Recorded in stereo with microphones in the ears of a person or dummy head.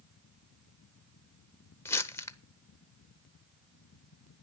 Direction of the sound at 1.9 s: 20° left (ahead or behind).